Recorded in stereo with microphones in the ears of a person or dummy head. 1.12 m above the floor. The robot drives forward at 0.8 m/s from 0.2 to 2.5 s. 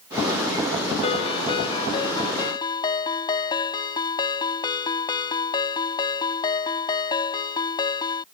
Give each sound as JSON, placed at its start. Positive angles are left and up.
{"t": 1.0, "sound": "a ringtone", "side_deg": 35}